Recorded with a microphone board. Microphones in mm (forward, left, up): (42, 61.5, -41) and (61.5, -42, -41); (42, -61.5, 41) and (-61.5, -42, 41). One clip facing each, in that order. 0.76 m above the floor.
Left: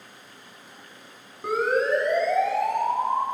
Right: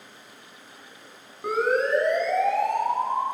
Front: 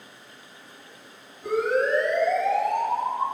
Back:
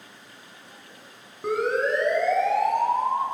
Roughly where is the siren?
Behind.